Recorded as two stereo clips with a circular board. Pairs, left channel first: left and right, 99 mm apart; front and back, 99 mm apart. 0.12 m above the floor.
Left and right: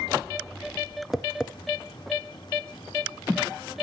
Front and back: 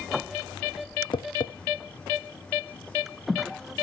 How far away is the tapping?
About 0.7 m.